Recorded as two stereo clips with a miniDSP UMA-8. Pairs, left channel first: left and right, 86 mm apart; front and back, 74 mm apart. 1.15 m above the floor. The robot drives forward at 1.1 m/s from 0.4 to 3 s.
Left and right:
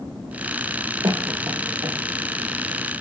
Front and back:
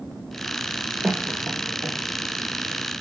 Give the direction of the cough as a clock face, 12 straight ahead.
4 o'clock.